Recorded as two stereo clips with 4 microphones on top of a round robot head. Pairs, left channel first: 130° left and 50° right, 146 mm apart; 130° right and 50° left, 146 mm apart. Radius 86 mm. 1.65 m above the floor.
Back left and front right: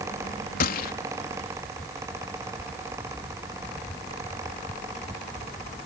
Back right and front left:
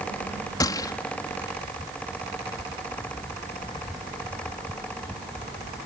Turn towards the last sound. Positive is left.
turn(degrees=160)